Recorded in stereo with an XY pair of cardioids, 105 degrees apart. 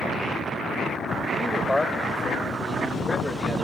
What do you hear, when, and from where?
1.4 s a man speaking: 15° left, 3 m; by 3.6 s 30° left, 2.5 m